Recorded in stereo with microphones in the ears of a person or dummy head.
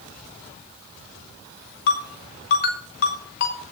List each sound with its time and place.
1.9 s a ringtone: 60° left (ahead or behind), 3.5 m